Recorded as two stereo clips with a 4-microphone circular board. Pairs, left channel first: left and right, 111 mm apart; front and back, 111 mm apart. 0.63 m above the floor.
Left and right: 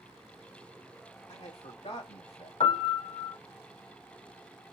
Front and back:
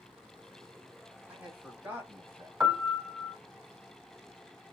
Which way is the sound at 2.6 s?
110° left.